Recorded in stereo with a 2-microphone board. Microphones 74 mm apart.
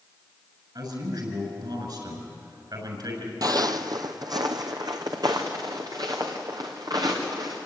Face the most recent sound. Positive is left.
turn(degrees=-55)  # may be behind; listen again after turning